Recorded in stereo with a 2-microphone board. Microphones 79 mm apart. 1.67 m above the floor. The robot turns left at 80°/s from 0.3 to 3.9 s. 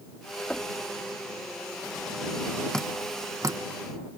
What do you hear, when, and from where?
0.5 s knocking: 15° left (ahead or behind); by 0.8 s 35° left (ahead or behind)
2.7 s dripping: 10° left (ahead or behind); by 3.6 s 55° right (ahead or behind)